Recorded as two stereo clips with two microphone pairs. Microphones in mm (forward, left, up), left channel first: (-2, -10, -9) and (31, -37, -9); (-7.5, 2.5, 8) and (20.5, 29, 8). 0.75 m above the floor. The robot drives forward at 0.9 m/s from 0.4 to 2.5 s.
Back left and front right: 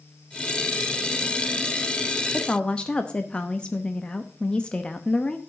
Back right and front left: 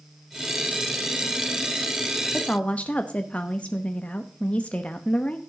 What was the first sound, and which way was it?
A woman speaking, 160° right.